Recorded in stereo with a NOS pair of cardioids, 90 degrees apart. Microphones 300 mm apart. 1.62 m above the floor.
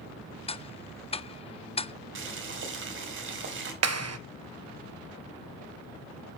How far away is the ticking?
About 0.7 m.